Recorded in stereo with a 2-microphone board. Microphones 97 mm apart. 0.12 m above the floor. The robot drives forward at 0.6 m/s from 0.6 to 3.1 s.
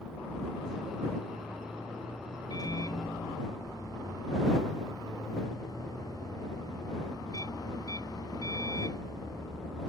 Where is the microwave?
40° left (ahead or behind).